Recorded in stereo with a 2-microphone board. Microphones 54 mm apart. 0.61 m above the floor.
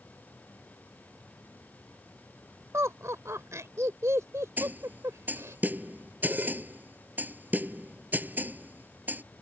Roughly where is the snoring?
I don't hear snoring.